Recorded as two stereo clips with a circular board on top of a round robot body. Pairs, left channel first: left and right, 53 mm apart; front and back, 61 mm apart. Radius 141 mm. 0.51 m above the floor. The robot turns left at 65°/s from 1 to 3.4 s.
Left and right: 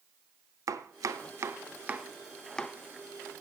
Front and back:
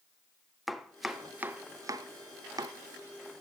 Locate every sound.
0.7 s chopping: 90° right, 0.6 m; by 2.8 s 155° left, 0.6 m